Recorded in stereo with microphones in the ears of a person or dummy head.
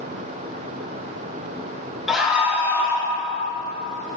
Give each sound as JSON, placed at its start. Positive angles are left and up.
{"t": 2.1, "sound": "a scream", "side_deg": 0, "distance_m": 2.0}